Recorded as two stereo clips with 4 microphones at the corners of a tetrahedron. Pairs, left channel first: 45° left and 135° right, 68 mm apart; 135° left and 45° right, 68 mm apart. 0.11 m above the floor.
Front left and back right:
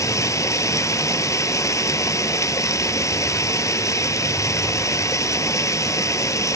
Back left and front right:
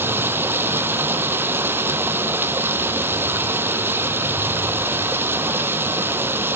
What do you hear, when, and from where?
0.0 s running water: 10° left, 0.9 m